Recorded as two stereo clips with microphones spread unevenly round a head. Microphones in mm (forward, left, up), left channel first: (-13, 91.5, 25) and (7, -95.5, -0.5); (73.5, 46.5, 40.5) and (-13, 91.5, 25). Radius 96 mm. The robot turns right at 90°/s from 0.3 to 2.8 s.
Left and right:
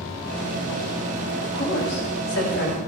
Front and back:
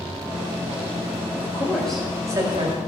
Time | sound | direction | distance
1.4 | a woman speaking | 15° left | 5 m